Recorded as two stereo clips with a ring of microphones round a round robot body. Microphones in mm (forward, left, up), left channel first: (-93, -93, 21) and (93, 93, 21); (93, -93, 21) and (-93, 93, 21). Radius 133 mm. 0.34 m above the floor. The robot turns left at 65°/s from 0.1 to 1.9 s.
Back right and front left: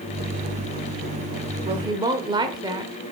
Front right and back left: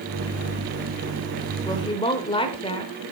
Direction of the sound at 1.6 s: 10° left.